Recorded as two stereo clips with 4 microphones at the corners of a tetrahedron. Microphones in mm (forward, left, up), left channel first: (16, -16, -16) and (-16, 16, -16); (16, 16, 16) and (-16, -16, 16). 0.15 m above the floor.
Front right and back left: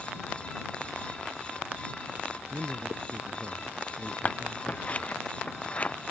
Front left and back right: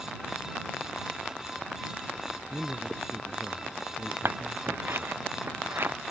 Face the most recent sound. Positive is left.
turn(degrees=-105)